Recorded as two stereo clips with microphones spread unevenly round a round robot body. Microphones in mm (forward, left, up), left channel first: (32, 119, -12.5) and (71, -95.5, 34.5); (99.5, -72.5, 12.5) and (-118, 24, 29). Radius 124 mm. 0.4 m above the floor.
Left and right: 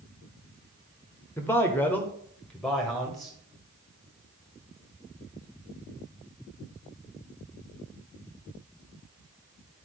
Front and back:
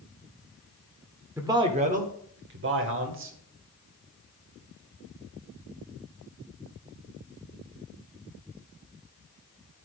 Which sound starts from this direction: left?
A man speaking, at 1.4 s.